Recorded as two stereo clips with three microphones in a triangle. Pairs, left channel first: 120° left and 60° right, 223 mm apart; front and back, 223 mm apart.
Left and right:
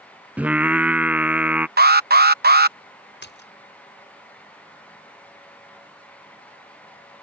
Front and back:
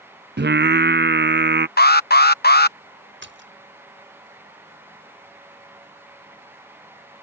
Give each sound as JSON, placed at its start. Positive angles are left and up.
{"t": 0.4, "sound": "singing", "azimuth_deg": -140}
{"t": 1.8, "sound": "an alarm", "azimuth_deg": -30}
{"t": 3.2, "sound": "a splash", "azimuth_deg": 155}